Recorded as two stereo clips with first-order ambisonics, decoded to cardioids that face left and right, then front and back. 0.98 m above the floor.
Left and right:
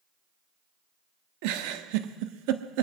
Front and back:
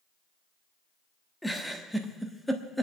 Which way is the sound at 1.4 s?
90° right.